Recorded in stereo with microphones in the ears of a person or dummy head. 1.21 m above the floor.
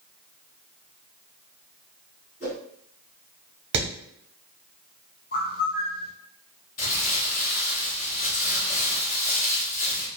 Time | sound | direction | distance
2.4 | a whoosh | 45° left (ahead or behind) | 1.6 m
3.7 | hammering | 55° right (ahead or behind) | 0.7 m
5.3 | a bird | 40° left (ahead or behind) | 0.5 m
6.8 | crumpling | 50° left (ahead or behind) | 1.0 m